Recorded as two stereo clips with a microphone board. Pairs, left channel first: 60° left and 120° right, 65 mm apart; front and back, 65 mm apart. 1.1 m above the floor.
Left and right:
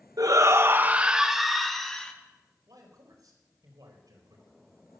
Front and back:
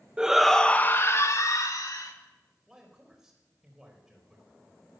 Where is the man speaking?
95° right, 5 m.